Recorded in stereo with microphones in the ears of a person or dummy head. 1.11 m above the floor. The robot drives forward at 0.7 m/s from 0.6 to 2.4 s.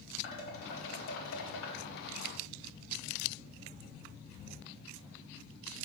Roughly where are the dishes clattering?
Left.